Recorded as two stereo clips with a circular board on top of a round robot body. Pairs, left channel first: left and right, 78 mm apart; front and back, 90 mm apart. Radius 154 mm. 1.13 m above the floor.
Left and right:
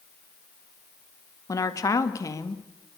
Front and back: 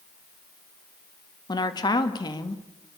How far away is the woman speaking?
About 1.9 m.